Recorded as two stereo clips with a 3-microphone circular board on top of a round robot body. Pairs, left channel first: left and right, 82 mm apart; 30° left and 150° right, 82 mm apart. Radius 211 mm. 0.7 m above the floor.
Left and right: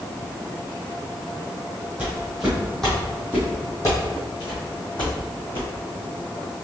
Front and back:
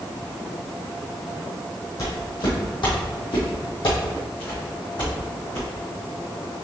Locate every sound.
2.0 s footsteps: 15° right, 2 m; by 5.7 s 65° left, 3 m